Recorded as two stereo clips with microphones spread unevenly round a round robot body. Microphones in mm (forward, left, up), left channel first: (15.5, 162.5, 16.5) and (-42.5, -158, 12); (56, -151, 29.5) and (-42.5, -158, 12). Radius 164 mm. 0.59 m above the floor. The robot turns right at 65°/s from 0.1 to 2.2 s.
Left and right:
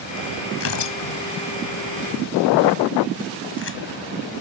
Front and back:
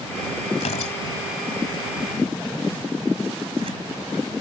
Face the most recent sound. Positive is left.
turn(degrees=130)